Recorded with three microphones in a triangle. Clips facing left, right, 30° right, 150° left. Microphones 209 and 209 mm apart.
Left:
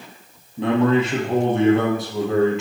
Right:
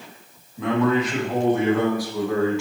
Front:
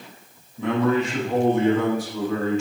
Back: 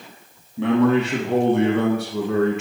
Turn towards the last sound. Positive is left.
turn(degrees=160)